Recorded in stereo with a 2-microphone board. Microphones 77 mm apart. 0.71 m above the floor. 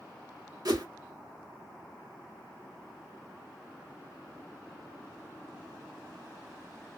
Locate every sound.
0.7 s a whoosh: 60° right (ahead or behind), 1.0 m